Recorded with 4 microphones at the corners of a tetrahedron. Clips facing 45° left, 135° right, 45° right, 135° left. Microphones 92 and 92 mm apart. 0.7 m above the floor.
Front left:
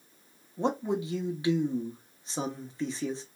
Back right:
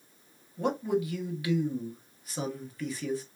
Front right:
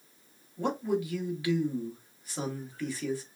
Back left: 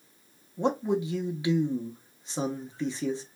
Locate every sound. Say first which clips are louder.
0.6 s a man speaking: back right 1 dB, back left 3 dB; 85° left, 0.8 m